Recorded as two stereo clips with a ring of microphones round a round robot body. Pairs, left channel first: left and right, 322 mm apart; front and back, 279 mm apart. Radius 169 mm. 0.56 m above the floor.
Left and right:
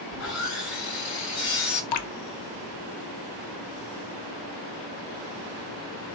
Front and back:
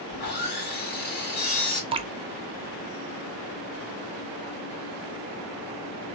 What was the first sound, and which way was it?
Sawing, 50° left.